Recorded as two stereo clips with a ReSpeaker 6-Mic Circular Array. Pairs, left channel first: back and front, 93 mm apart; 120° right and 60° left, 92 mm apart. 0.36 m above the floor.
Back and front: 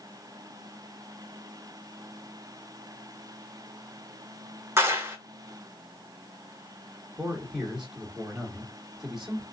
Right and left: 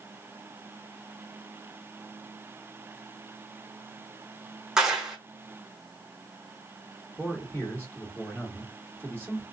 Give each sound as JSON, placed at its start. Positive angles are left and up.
{"t": 4.8, "sound": "a clap", "azimuth_deg": -10, "distance_m": 0.7}
{"t": 7.2, "sound": "a man speaking", "azimuth_deg": -90, "distance_m": 1.5}